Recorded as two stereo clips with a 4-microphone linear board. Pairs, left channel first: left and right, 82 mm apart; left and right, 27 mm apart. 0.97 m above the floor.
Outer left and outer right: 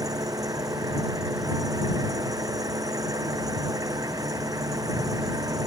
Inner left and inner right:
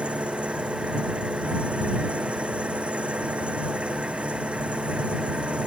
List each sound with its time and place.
0.0 s an engine running: 45° right (ahead or behind)